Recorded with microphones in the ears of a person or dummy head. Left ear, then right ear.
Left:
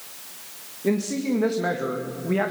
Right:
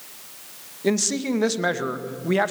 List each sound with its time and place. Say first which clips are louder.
0.8 s a man speaking: right 2 dB; 75° right (ahead or behind), 2 m